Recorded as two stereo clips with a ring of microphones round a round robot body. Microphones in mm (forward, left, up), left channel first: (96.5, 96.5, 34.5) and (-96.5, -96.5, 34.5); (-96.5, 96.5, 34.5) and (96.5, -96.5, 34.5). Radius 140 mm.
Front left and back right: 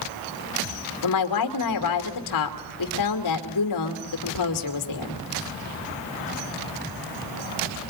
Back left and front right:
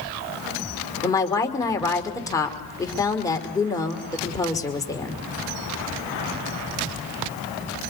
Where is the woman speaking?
55° left, 2.5 m.